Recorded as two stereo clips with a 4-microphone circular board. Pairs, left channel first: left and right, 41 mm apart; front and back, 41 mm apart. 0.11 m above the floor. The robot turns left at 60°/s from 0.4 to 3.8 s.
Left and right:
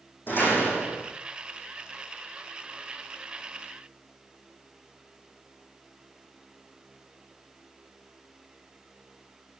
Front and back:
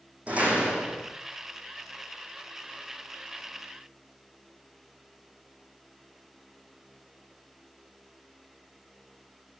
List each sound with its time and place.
0.3 s a door slam: 125° left, 3.5 m; by 1.1 s 85° left, 3.5 m